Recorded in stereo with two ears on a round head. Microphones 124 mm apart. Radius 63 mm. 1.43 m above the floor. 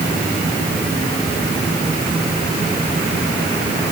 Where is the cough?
I don't hear a cough.